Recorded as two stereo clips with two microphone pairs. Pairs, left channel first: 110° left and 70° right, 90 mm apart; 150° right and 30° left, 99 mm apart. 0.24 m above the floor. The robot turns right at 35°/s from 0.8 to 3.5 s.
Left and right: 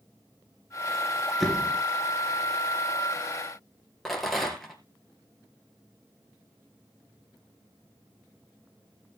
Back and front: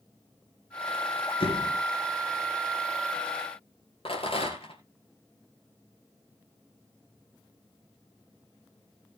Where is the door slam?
160° right, 2.5 m; by 1.8 s 145° right, 2.5 m.